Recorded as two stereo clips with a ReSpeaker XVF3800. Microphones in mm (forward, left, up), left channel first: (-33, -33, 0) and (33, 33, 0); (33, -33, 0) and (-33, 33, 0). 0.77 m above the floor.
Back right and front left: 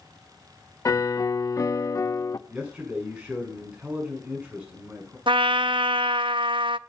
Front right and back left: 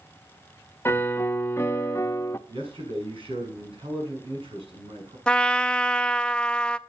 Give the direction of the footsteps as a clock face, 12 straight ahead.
I don't hear footsteps.